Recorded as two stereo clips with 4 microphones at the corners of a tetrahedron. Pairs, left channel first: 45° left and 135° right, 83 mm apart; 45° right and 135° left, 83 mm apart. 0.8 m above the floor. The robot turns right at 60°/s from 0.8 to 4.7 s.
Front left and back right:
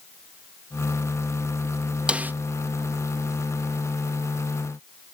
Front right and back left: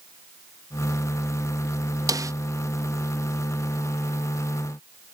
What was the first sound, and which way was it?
A snare drum, 150° left.